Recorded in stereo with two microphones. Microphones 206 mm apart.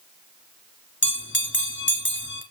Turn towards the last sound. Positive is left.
turn(degrees=65)  # may be behind; listen again after turning